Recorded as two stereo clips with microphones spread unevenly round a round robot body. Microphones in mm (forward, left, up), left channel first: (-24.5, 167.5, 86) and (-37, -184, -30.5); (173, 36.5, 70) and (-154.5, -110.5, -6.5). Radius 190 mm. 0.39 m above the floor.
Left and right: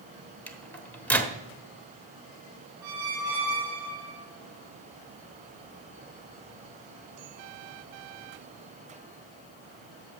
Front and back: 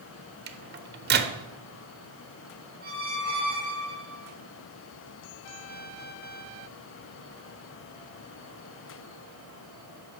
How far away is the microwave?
About 0.9 m.